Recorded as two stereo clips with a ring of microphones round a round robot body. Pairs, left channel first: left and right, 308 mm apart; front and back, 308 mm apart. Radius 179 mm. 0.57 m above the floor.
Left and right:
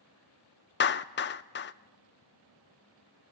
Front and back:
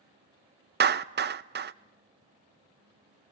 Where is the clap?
130° left, 0.6 m.